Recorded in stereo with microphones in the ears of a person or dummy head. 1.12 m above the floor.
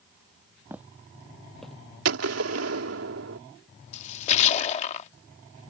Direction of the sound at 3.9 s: 35° left (ahead or behind).